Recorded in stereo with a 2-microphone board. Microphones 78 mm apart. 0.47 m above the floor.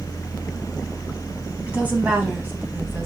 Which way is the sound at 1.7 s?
20° right (ahead or behind).